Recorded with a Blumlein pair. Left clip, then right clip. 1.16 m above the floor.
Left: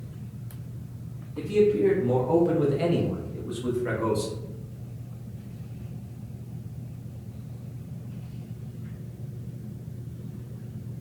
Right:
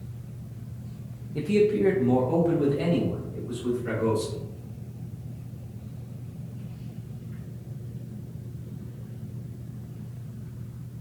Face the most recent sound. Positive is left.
turn(degrees=25)